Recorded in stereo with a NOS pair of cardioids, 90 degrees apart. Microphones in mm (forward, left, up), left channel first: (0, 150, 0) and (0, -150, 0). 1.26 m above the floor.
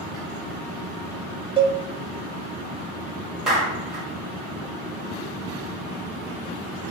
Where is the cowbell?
20° right, 0.5 m.